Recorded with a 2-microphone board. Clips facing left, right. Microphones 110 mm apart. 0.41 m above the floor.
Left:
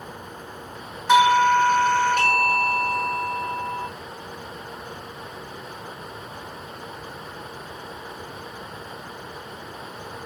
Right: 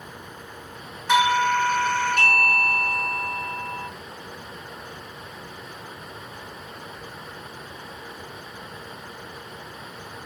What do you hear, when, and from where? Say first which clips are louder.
1.1 s a doorbell: left 4 dB; 20° left (ahead or behind), 1.9 m